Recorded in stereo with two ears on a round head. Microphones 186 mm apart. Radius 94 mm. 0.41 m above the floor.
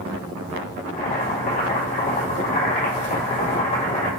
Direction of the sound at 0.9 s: 40° left (ahead or behind).